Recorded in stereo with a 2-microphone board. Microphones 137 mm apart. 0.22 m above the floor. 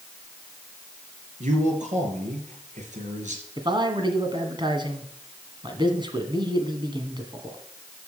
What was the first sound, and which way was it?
A man speaking, 70° right (ahead or behind).